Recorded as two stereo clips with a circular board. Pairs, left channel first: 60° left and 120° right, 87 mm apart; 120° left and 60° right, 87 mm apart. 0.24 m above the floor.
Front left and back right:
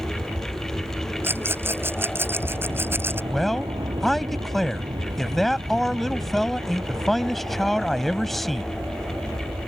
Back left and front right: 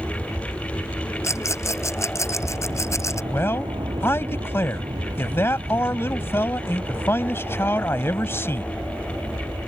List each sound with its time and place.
0.0 s an aircraft: 90° right; by 9.7 s 85° right
1.2 s a rattle: 175° left
3.3 s a man speaking: 145° left